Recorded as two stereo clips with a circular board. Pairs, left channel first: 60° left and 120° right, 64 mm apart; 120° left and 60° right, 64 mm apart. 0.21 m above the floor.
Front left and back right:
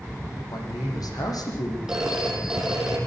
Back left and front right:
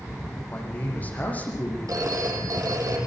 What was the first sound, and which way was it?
A man speaking, 55° left.